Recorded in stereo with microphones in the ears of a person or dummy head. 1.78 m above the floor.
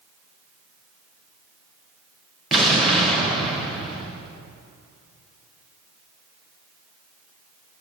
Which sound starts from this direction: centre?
An explosion, at 2.5 s.